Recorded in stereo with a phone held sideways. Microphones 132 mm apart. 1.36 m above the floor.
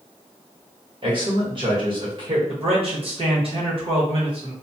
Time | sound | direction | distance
1.0 | a man speaking | 40° right (ahead or behind) | 1.2 m
2.5 | a man speaking | 45° right (ahead or behind) | 1.2 m